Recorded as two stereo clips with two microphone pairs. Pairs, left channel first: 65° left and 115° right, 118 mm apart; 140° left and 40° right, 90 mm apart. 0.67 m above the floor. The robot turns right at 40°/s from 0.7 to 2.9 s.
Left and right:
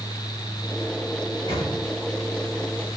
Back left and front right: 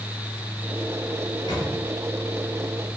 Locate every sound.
1.2 s a microwave: 95° left, 7.5 m; by 1.7 s 115° left, 7.5 m